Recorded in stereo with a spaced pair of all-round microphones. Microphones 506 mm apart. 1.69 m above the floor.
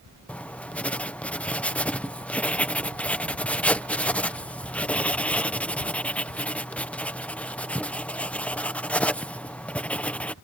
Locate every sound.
0.3 s writing: 5° left (ahead or behind)